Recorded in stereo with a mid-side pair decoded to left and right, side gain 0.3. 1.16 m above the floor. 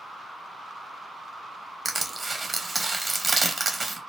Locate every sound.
1.9 s crushing: 25° right, 1.2 m